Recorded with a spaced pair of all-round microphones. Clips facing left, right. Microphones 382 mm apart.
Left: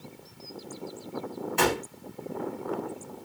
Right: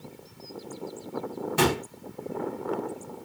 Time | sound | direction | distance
1.6 | a gunshot | 50° right (ahead or behind) | 1.2 m